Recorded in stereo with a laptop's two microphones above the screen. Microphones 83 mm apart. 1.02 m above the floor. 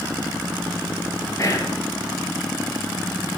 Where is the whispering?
40° left (ahead or behind), 0.8 m.